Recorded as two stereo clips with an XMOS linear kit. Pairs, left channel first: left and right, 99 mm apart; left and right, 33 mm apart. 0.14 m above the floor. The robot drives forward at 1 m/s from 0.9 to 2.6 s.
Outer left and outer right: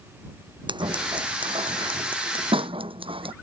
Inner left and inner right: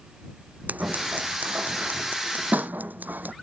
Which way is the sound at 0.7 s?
55° right (ahead or behind).